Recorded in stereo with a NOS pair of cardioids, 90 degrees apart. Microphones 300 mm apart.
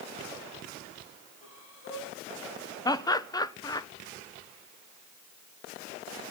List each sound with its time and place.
1.4 s breathing: 45° left, 10 m
2.9 s laughter: 15° left, 1.2 m